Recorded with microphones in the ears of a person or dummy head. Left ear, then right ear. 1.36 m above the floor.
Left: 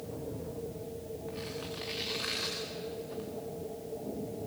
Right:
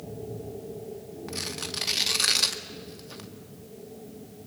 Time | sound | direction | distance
1.3 | tearing paper | 75° right (ahead or behind) | 1.7 m